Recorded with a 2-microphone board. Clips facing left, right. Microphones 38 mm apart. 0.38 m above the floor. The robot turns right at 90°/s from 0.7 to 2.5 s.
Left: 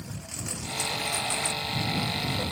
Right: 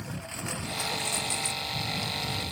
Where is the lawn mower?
20° right; by 2.5 s 140° left.